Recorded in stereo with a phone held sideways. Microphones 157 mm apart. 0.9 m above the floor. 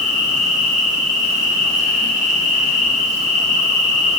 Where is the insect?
50° right (ahead or behind), 1.3 m.